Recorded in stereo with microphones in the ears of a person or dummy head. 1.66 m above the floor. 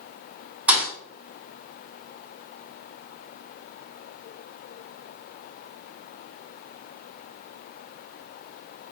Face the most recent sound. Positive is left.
turn(degrees=-10)  # may be behind; listen again after turning